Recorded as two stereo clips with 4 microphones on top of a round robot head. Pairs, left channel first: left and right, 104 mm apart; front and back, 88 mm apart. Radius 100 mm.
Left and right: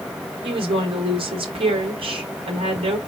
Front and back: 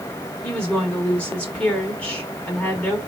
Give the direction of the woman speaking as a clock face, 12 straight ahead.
3 o'clock.